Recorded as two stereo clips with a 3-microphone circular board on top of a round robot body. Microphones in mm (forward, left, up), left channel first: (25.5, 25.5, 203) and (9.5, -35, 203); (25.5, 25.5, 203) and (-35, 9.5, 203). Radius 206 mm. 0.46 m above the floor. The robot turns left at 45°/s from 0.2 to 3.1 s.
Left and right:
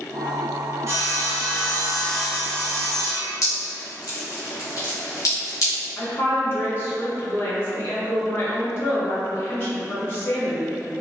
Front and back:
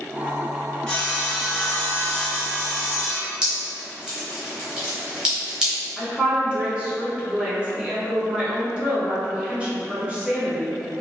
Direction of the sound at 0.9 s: 60° right.